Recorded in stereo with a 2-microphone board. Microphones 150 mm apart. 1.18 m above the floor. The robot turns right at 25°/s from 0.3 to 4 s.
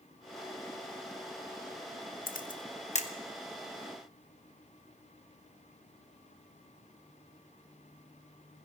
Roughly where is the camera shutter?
Left.